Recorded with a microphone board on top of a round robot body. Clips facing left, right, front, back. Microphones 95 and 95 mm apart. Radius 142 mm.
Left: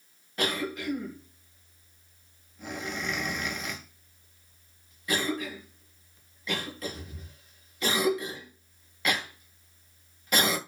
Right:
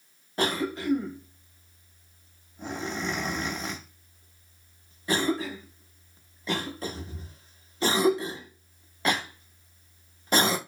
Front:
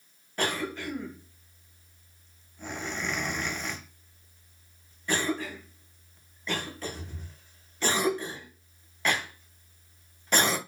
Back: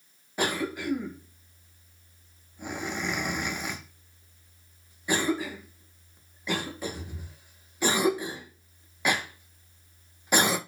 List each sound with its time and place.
0.4 s a cough: 110° right, 0.9 m